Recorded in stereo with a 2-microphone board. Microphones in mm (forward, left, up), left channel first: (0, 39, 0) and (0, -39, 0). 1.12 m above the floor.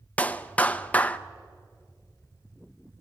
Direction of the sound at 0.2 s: 20° left (ahead or behind).